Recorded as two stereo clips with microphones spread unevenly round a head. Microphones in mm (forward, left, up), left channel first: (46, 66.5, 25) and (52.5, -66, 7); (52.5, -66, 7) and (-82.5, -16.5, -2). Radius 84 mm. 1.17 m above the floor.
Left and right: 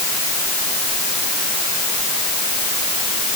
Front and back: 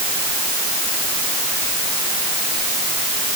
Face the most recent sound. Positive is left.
No sound to turn to.